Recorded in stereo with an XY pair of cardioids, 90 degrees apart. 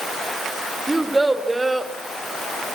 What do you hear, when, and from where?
0.9 s a child speaking: 15° right, 3 m